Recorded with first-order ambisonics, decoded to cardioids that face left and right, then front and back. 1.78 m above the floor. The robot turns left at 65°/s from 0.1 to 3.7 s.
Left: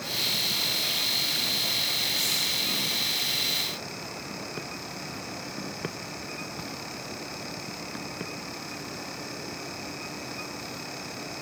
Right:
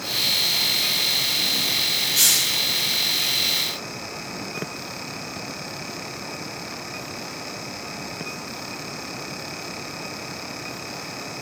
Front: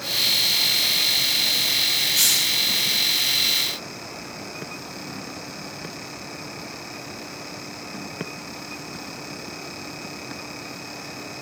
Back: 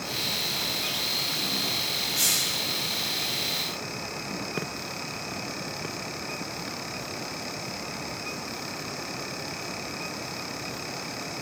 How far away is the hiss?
About 3.5 m.